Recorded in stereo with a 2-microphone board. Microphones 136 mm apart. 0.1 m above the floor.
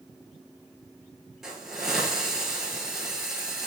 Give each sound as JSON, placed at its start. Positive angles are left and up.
{"t": 1.4, "sound": "a hiss", "side_deg": -5, "distance_m": 1.5}